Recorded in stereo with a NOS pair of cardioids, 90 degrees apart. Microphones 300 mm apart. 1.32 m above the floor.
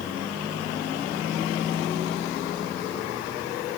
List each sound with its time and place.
Only background noise.